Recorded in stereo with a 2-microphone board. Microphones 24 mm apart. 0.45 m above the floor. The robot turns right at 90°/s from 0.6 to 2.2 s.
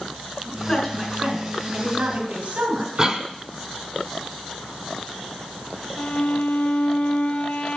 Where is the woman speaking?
155° left, 4 m; by 3.1 s 70° right, 4 m.